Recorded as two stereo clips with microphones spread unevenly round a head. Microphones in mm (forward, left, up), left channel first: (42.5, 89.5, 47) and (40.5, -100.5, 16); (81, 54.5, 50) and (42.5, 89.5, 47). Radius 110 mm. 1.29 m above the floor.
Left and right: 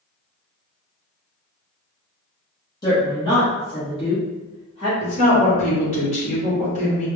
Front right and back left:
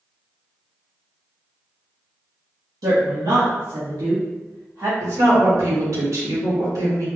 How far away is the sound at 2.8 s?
About 1.0 m.